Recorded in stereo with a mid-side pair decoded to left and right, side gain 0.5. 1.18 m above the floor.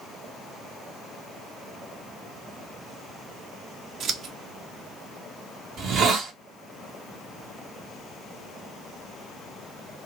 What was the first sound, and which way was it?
Scissors, 60° right.